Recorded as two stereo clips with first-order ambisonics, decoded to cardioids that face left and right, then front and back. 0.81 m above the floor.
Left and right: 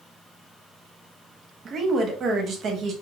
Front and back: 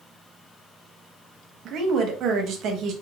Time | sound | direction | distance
1.6 | a woman speaking | 145° right | 0.7 m